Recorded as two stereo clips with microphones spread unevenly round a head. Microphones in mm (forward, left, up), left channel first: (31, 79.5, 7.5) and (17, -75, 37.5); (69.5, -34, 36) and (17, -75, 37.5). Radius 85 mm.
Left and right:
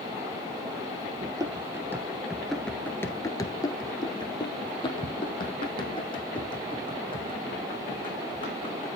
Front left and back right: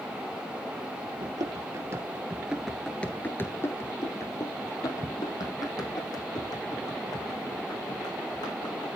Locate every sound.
1.2 s running footsteps: 150° right, 1.7 m; by 8.9 s 25° left, 6 m